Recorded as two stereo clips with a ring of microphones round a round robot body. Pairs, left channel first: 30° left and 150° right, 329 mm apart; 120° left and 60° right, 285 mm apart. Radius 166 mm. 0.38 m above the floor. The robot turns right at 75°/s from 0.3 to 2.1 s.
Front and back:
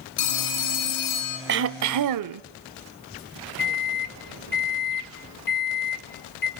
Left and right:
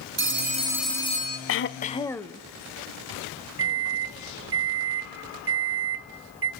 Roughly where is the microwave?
Ahead right.